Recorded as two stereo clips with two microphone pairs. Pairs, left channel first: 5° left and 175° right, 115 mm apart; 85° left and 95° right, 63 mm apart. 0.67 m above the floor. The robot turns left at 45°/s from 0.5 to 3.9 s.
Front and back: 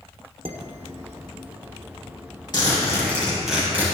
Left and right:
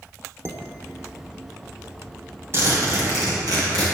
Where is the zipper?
45° right, 5 m; by 3.9 s 105° right, 5 m.